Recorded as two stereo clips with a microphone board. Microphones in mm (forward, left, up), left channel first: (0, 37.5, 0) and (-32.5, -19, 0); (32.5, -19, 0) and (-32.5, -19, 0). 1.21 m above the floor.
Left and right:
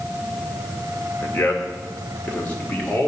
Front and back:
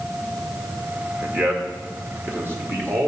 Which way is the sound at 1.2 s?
125° left.